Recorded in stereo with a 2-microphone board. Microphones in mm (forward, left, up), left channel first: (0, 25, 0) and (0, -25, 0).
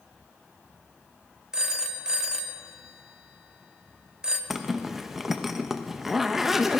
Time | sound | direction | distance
1.5 | a phone ringing | 15° right (ahead or behind) | 0.9 m
4.5 | a zipper | 5° right (ahead or behind) | 0.8 m